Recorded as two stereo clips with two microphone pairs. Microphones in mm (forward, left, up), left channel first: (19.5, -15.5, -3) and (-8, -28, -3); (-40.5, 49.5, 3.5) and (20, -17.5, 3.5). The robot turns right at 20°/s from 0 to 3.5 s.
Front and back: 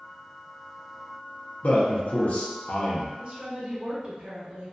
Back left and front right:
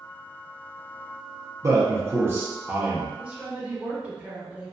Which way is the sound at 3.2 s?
120° right.